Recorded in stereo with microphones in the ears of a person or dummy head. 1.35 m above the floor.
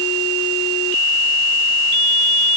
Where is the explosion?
I don't hear an explosion.